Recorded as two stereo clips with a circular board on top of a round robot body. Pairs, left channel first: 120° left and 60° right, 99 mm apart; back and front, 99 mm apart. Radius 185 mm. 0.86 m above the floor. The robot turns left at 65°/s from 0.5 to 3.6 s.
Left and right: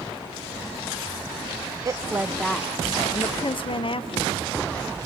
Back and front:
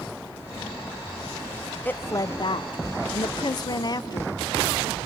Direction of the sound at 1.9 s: 110° right.